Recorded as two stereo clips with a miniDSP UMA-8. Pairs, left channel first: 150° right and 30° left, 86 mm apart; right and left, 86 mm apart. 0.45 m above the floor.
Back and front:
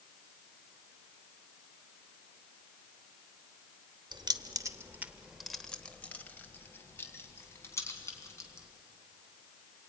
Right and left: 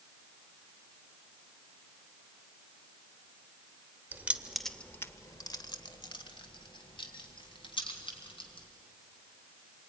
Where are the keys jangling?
25° left, 0.9 m; by 8.7 s 95° right, 3.5 m.